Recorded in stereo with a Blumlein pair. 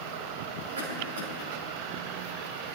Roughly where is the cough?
Ahead right.